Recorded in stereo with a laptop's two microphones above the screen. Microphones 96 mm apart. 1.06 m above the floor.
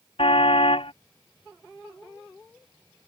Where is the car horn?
80° left.